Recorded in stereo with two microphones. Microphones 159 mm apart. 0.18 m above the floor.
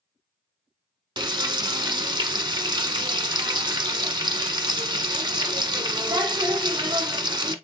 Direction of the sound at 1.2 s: 30° right (ahead or behind).